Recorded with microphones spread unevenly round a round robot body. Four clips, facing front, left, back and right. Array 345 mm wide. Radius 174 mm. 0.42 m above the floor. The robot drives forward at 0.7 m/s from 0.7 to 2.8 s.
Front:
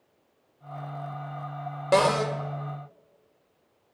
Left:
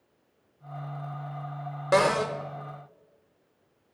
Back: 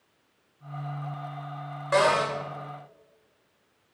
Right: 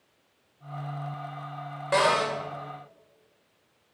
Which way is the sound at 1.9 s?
45° left.